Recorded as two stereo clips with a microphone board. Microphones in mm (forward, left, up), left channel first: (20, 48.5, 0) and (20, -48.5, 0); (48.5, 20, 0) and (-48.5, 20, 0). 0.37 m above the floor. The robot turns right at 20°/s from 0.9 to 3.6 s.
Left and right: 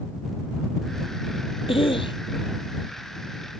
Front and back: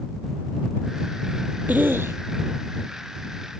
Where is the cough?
110° left; by 2.2 s 120° left.